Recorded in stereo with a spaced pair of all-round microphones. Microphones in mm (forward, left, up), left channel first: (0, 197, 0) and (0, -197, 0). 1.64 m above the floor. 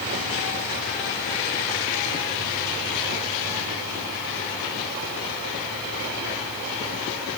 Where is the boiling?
No boiling in this recording.